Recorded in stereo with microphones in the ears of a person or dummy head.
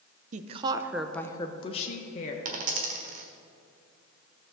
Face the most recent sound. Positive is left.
turn(degrees=-45)  # may be behind; listen again after turning